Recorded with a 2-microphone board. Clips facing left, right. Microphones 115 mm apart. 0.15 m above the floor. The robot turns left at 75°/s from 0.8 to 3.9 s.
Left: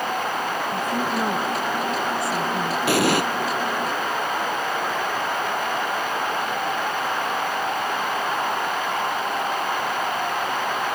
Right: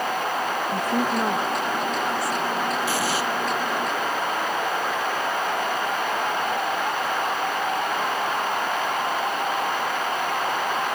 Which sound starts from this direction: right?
A woman speaking, at 0.7 s.